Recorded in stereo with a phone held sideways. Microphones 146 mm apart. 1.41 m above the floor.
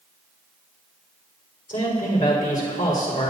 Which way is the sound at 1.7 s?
80° left.